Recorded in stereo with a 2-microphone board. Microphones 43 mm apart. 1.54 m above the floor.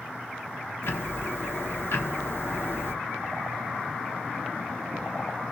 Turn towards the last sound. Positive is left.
turn(degrees=65)  # may be behind; listen again after turning